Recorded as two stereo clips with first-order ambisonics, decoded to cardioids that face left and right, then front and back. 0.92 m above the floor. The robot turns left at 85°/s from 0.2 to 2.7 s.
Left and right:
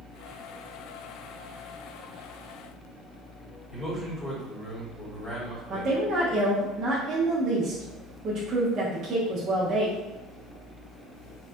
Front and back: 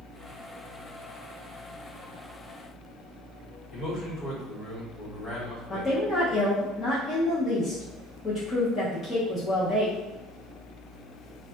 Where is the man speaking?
30° left, 1.2 m.